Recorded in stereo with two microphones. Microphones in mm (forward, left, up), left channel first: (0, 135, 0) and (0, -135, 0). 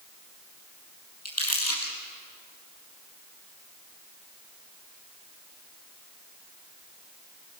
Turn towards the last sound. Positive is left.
turn(degrees=60)  # may be behind; listen again after turning